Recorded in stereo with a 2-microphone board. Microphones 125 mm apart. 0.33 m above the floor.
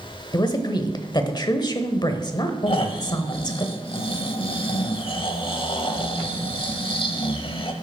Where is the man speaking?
35° left (ahead or behind), 1.0 m.